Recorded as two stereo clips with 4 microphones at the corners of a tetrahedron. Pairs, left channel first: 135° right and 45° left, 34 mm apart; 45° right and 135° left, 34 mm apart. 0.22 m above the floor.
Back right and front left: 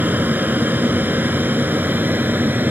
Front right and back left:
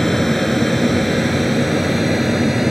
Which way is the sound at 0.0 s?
30° left.